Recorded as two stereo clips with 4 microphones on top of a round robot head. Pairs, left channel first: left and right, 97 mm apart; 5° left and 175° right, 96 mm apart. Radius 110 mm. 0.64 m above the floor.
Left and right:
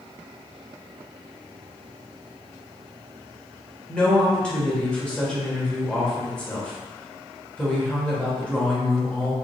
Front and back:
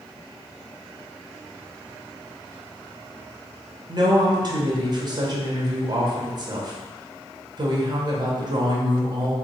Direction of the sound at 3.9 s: 165° left.